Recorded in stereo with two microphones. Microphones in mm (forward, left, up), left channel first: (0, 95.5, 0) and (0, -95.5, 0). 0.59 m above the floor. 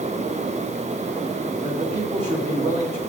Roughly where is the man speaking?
Right.